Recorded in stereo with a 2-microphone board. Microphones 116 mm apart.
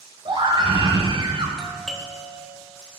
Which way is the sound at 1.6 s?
5° left (ahead or behind).